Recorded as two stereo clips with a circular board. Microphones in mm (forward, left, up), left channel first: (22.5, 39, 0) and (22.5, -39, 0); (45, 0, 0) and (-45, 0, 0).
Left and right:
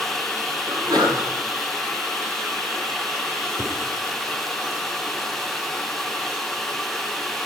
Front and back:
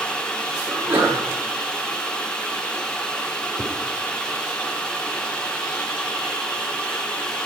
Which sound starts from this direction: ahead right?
A whoosh, at 3.6 s.